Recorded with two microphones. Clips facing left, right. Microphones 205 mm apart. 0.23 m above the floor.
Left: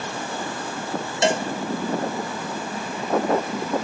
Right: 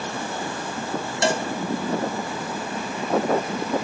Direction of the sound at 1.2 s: 20° left (ahead or behind).